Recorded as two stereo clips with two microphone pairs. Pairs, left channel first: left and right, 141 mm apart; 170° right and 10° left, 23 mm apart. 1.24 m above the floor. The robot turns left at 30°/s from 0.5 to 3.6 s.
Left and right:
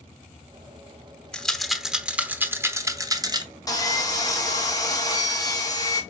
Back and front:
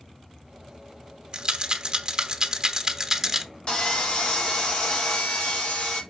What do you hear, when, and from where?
1.3 s a rattle: 10° left, 1.0 m; by 3.5 s 55° right, 1.0 m
3.7 s sawing: 155° left, 1.6 m